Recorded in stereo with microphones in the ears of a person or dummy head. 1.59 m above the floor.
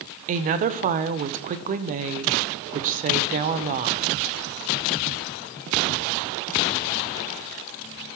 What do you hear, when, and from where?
0.3 s a woman speaking: 40° right (ahead or behind), 0.6 m